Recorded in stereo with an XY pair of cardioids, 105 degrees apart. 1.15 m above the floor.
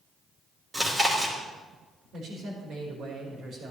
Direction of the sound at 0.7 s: 15° right.